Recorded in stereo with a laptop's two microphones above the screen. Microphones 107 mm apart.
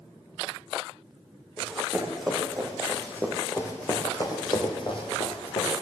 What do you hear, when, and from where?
1.6 s running footsteps: 5° right (ahead or behind), 3 m; by 5.7 s 65° left (ahead or behind), 2 m